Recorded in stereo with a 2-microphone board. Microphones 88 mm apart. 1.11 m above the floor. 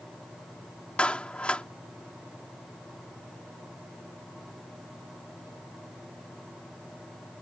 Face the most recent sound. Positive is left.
turn(degrees=15)  # may be behind; listen again after turning